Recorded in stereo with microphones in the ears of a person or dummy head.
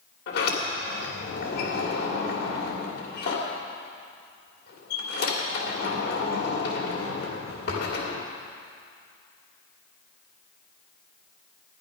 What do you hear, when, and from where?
0.3 s a sliding door: 65° left (ahead or behind), 2.5 m